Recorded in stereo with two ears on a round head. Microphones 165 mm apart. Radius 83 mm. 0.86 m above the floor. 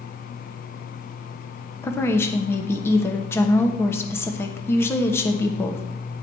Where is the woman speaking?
15° left (ahead or behind), 1.0 m.